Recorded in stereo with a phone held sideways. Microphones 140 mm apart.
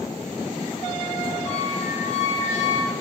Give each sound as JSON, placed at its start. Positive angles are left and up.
{"t": 1.4, "sound": "a squeak", "side_deg": -10, "distance_m": 4.5}